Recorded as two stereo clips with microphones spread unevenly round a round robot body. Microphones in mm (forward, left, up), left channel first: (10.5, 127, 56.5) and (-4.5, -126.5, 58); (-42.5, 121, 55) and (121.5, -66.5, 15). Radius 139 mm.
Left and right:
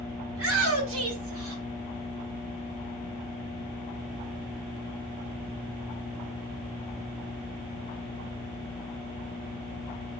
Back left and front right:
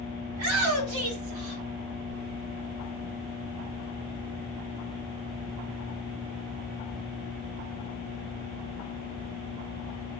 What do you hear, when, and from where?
0.3 s a shout: 60° right, 3.5 m; by 1.6 s 70° right, 2.5 m